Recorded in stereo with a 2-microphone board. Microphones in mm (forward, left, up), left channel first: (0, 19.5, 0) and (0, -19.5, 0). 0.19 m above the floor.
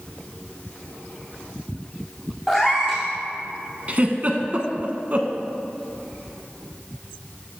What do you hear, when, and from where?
2.5 s a cat meowing: 10° left (ahead or behind), 2.5 m
3.9 s a giggle: 40° right (ahead or behind), 0.9 m